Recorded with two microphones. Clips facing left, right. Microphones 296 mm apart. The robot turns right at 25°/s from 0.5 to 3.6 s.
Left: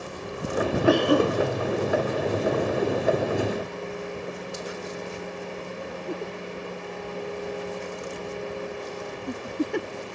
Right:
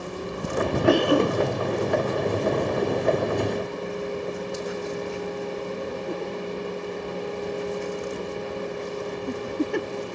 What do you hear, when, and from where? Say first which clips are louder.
0.8 s a cough: right 1 dB; 45° right (ahead or behind), 2 m; by 1.4 s 35° right (ahead or behind), 2 m